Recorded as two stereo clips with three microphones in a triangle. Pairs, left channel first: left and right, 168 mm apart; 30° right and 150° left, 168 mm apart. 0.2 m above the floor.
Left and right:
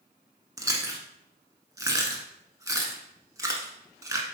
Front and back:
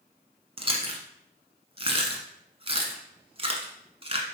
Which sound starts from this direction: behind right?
Chewing, at 0.6 s.